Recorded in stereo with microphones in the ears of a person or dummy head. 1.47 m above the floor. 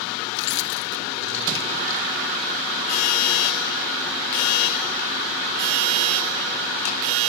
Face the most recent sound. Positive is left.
turn(degrees=75)  # may be behind; listen again after turning